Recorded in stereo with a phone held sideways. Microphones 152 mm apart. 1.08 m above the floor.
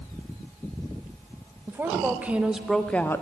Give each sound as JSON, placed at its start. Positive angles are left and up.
{"t": 1.7, "sound": "a woman speaking", "side_deg": -15, "distance_m": 1.1}